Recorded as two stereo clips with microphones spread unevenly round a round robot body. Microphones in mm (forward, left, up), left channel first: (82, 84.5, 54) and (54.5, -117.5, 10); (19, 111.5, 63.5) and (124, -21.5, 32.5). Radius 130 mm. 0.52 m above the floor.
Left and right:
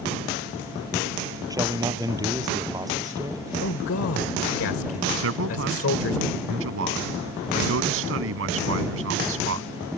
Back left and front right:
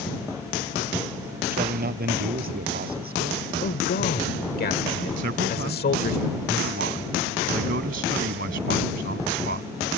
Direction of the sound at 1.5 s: 25° right.